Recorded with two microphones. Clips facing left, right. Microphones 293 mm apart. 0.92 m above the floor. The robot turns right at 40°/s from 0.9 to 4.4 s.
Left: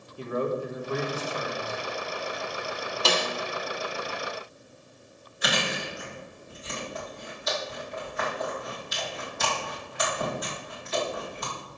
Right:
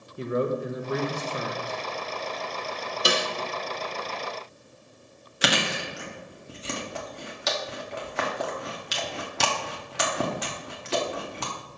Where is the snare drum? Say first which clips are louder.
Right 1 dB; 15° right (ahead or behind), 1.0 m; by 3.3 s 5° right (ahead or behind), 1.0 m.